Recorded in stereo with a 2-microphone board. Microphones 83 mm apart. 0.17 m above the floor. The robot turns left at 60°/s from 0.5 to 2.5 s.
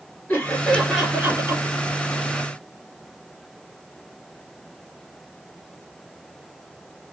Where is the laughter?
25° left, 3 m; by 1.7 s 45° right, 3 m.